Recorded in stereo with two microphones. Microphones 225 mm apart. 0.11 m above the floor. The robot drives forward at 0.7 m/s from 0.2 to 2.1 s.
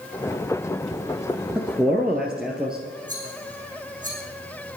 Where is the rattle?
35° right (ahead or behind), 4.5 m.